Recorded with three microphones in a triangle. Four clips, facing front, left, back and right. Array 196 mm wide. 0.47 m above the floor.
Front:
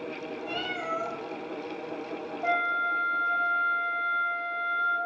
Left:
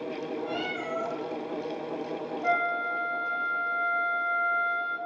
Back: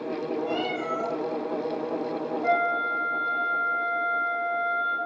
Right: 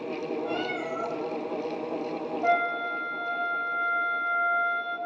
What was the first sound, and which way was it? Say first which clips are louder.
A cat meowing: right 2 dB, back 5 dB; 145° right.